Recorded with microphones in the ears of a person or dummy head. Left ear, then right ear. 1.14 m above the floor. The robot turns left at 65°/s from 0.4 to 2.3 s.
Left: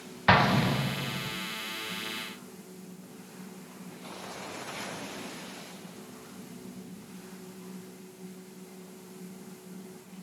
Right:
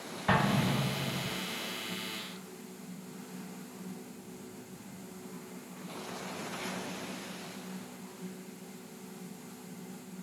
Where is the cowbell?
No cowbell in this recording.